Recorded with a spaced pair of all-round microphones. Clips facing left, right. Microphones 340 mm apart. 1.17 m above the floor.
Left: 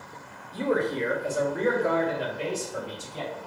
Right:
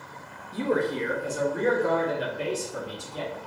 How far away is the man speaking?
About 0.6 m.